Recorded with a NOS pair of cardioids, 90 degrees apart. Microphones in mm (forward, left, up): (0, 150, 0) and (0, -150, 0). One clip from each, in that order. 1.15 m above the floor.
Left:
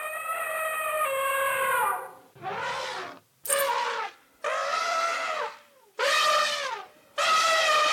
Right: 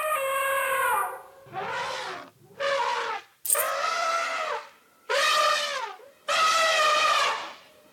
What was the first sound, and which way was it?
Keys jangling, 20° right.